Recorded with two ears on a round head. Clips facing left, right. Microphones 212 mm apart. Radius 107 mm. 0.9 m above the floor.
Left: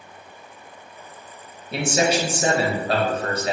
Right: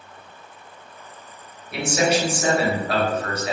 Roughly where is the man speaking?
Left.